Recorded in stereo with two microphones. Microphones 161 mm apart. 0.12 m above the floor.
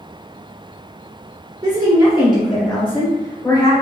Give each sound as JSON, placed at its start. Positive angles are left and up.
{"t": 1.6, "sound": "a woman speaking", "side_deg": -20, "distance_m": 1.7}